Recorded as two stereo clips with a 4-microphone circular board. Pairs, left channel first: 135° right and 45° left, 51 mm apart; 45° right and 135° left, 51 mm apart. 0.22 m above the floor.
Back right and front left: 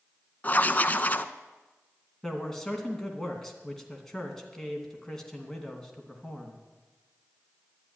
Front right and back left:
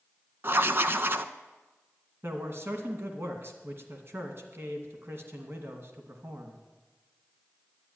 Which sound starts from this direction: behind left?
A man speaking, at 2.2 s.